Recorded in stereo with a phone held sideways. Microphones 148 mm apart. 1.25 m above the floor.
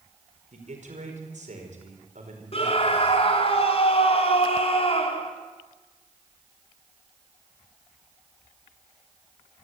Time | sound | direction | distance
0.5 | a man speaking | 60° right (ahead or behind) | 5 m
2.5 | a scream | 45° left (ahead or behind) | 3.5 m